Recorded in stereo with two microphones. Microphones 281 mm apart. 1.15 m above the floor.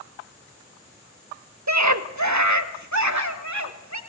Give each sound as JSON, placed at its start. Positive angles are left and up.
{"t": 1.7, "sound": "a scream", "side_deg": -70, "distance_m": 1.3}